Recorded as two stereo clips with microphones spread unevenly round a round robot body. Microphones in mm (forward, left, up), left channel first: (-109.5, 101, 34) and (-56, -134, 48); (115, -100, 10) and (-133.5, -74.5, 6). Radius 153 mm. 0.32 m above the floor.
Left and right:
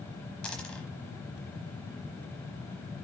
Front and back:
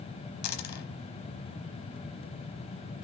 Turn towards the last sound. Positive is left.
turn(degrees=15)